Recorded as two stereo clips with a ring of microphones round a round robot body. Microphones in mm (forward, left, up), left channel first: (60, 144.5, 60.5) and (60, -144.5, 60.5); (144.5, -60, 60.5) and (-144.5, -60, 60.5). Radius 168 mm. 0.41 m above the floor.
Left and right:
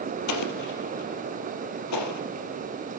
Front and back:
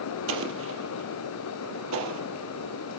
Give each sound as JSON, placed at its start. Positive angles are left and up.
{"t": 0.3, "sound": "an explosion", "azimuth_deg": 130, "distance_m": 3.5}